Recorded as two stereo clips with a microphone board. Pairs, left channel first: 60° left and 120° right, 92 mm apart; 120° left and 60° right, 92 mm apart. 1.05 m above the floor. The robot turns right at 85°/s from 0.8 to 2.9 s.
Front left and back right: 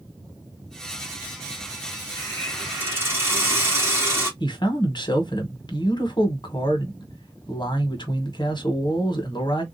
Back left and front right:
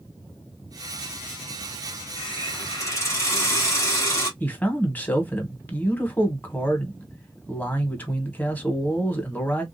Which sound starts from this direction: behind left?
A hiss, at 2.2 s.